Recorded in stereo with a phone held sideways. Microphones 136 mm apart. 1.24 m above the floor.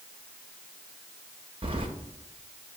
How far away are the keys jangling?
About 0.8 m.